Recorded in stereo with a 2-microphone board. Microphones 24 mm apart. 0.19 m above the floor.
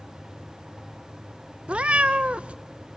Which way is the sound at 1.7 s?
50° right (ahead or behind).